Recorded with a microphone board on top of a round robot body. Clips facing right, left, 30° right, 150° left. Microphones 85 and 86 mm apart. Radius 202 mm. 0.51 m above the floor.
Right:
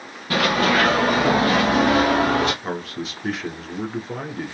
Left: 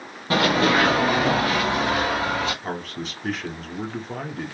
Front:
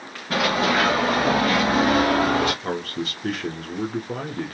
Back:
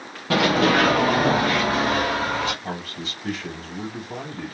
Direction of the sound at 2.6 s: 5° right.